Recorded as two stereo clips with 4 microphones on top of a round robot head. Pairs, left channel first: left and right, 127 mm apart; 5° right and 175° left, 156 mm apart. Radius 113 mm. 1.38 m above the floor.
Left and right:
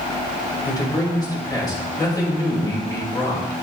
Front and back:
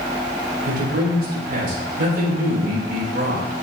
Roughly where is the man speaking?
Behind left.